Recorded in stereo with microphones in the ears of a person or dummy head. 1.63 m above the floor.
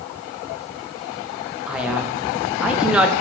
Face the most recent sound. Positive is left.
turn(degrees=-5)  # may be behind; listen again after turning